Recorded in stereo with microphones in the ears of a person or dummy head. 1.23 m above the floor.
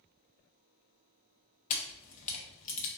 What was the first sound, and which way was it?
A camera shutter, 40° left (ahead or behind).